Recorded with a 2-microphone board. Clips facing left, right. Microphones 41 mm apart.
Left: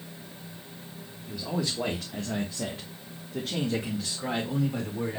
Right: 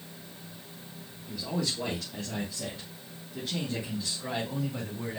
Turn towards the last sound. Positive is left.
turn(degrees=75)  # may be behind; listen again after turning